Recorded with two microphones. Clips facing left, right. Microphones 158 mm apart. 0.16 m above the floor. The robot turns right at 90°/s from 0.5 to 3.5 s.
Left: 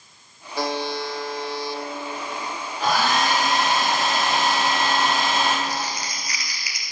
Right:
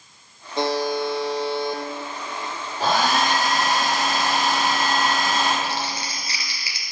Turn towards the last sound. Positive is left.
turn(degrees=-30)  # may be behind; listen again after turning